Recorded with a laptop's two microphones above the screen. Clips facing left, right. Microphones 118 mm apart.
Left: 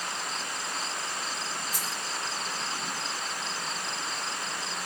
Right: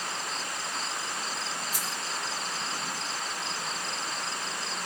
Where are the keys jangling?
5° right (ahead or behind), 1.9 m.